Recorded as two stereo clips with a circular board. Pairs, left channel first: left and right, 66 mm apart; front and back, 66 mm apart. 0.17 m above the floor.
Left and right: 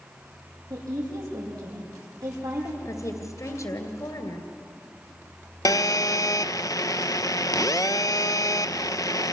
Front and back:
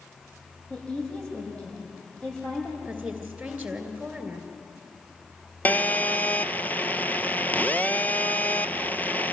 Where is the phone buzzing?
65° left, 0.6 m.